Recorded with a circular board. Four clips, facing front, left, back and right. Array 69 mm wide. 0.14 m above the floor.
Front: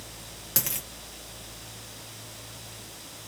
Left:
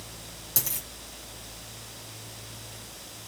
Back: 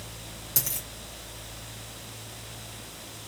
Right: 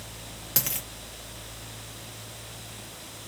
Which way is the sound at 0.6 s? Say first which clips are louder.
Right 4 dB, front 4 dB; 50° right.